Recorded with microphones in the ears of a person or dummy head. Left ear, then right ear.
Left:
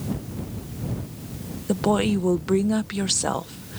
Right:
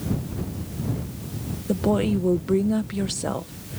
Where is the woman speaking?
30° left (ahead or behind).